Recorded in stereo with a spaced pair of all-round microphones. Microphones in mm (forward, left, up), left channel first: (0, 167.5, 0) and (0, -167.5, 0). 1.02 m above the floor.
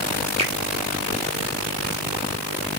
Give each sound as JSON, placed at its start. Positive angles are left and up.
{"t": 0.4, "sound": "a finger snap", "side_deg": -20, "distance_m": 3.5}